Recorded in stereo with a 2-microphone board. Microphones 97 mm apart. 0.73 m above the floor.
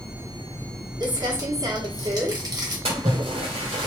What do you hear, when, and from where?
1.0 s crumpling: 45° right (ahead or behind), 1.1 m
2.9 s a splash: 80° right, 1.2 m